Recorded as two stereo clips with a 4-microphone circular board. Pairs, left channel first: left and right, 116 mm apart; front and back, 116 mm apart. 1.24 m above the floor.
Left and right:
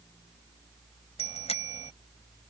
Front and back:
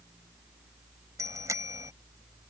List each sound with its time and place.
1.2 s a bicycle bell: 115° left